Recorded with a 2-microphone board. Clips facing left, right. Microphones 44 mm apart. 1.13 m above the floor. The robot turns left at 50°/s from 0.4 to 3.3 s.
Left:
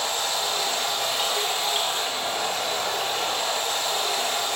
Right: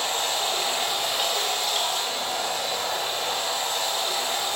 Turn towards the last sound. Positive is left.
turn(degrees=70)